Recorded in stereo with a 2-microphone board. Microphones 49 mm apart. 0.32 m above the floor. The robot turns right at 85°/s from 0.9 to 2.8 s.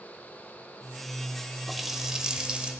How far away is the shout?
No shout in this recording.